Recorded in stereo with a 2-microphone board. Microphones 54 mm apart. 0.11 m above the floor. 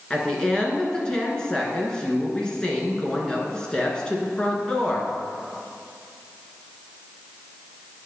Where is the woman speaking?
15° left (ahead or behind), 1.7 m.